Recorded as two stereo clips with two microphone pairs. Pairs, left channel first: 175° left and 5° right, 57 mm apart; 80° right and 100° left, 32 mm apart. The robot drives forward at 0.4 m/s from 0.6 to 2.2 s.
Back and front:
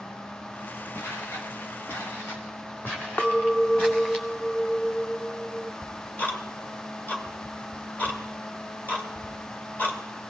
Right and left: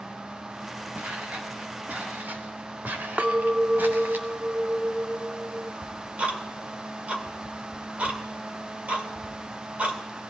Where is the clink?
125° left, 0.5 m.